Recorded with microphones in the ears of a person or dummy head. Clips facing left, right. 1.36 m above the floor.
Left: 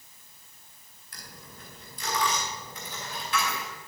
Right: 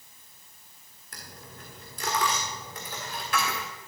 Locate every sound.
1.1 s a dropped coin: 40° right (ahead or behind), 1.5 m